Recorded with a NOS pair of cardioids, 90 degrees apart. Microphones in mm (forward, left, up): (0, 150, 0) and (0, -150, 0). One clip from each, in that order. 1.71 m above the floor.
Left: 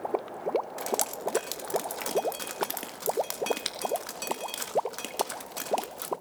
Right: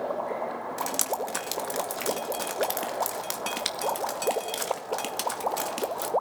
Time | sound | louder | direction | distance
0.8 | dripping | right 2 dB | 15° right | 2 m